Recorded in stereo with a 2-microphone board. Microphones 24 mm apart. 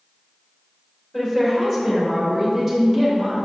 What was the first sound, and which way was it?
A woman speaking, 15° left (ahead or behind).